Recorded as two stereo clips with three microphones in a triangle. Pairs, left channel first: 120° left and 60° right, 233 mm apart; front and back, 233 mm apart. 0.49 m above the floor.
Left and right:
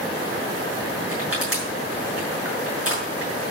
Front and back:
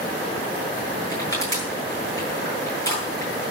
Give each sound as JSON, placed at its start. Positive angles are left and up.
{"t": 1.1, "sound": "crushing", "azimuth_deg": -75, "distance_m": 7.0}